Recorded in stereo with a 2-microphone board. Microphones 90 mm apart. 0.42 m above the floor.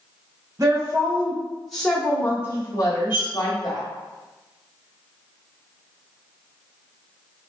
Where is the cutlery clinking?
25° right (ahead or behind), 1.1 m.